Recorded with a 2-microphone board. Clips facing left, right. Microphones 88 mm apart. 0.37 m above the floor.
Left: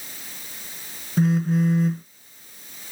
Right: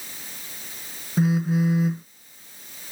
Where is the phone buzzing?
5° right (ahead or behind).